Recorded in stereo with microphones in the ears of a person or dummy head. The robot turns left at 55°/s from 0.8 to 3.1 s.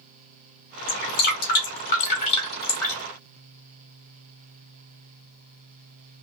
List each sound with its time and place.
0.9 s dripping: 40° left (ahead or behind), 1.3 m; by 3.0 s 10° left (ahead or behind), 1.3 m